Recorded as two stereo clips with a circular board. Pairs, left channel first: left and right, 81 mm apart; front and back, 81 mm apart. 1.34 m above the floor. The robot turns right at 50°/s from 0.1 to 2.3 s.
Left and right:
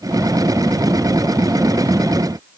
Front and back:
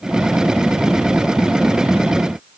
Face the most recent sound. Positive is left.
No sound to turn to.